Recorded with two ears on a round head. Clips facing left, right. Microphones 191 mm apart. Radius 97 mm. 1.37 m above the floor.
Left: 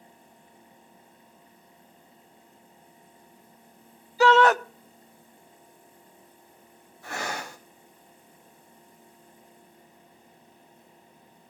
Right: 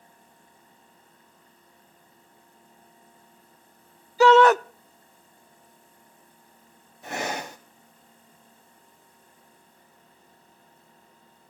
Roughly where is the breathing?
Centre.